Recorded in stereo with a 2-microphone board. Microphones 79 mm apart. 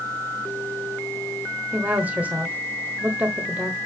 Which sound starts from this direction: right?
A woman speaking, at 1.7 s.